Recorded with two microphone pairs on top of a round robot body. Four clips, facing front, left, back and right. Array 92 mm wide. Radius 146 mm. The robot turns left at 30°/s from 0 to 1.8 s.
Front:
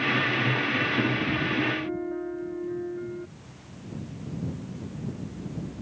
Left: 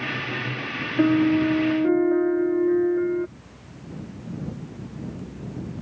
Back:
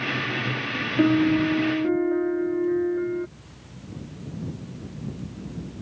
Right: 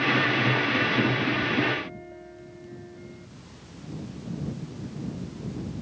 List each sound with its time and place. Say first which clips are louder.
1.0 s a piano: left 7 dB, back 7 dB; 135° left; by 3.3 s 110° left